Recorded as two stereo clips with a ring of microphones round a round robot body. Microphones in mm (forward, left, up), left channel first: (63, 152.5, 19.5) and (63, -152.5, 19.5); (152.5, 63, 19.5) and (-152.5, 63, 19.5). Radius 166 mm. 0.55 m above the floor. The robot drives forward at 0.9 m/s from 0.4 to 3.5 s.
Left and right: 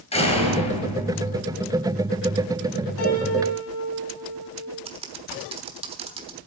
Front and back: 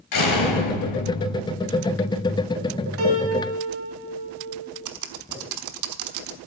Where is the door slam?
20° left, 6.5 m; by 1.6 s 25° left, 5.5 m.